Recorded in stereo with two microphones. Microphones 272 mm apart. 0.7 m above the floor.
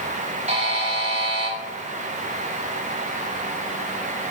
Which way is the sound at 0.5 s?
25° right (ahead or behind).